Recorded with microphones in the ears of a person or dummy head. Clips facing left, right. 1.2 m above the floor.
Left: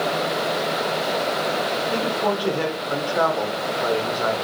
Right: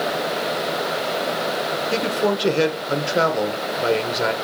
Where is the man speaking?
30° right (ahead or behind), 0.9 m.